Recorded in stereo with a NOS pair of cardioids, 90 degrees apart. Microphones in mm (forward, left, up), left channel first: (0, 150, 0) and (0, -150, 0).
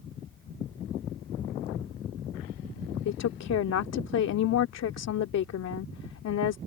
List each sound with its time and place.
3.0 s a woman speaking: 60° left